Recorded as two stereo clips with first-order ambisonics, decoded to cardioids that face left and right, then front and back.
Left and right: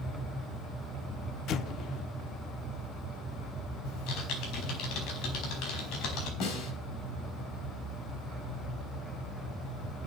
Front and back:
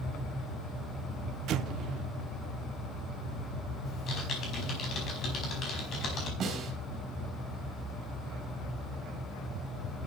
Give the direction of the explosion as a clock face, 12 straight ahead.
7 o'clock.